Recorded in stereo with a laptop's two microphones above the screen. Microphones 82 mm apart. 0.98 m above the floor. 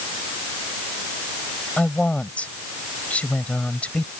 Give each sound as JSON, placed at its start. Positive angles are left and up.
{"t": 1.8, "sound": "a woman speaking", "side_deg": 15}